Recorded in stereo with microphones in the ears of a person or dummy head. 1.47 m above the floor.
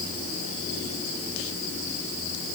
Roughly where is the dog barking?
No dog barking in this recording.